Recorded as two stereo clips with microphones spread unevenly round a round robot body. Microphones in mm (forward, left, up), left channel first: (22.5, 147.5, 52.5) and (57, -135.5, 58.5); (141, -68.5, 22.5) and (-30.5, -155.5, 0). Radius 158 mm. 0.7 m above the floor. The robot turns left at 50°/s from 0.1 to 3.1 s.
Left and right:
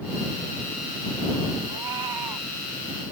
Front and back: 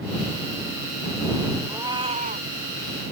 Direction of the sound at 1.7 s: 75° right.